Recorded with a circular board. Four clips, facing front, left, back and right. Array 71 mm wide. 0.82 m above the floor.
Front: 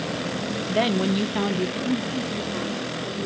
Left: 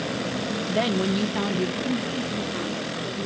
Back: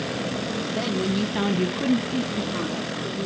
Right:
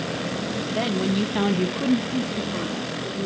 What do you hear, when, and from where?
0.7 s a woman speaking: 15° left, 0.8 m; by 3.3 s 150° right, 1.9 m